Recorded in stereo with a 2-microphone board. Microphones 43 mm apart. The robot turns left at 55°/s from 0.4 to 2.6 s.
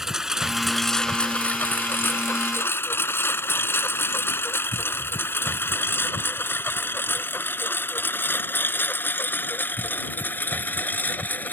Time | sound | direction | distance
0.0 | a lawn mower | 10° right (ahead or behind) | ?